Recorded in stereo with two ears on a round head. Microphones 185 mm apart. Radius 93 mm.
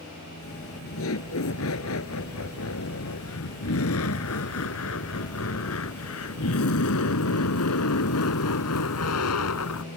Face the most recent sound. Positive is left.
turn(degrees=75)  # may be behind; listen again after turning